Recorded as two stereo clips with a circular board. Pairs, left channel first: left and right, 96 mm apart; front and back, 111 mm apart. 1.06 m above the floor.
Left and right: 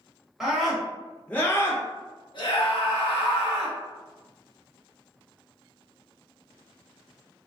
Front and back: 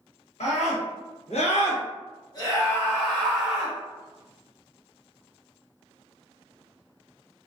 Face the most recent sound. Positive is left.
turn(degrees=95)